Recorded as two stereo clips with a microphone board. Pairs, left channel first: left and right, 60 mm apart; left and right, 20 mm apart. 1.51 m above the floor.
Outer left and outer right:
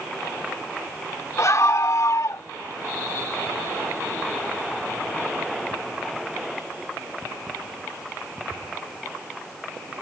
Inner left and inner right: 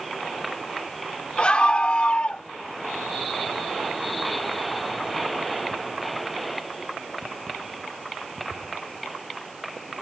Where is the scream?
55° left (ahead or behind); by 2.4 s 60° left (ahead or behind).